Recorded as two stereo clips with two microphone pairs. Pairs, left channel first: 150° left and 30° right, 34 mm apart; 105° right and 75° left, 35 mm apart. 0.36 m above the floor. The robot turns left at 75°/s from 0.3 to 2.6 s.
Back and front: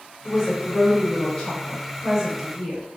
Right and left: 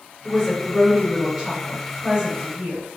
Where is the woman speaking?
160° right, 1.5 m; by 2.8 s 30° left, 1.5 m.